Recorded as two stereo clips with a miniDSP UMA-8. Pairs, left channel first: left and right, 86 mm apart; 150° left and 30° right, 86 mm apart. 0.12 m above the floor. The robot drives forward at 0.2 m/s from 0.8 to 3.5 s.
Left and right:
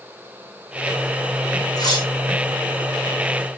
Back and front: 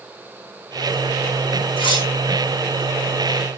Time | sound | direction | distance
1.8 | cutlery clinking | 135° left | 3.5 m